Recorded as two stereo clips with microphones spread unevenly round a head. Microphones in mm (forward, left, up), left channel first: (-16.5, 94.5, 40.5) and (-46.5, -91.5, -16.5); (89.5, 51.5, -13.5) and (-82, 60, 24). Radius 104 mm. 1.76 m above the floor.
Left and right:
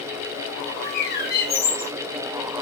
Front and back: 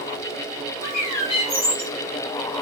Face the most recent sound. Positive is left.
turn(degrees=55)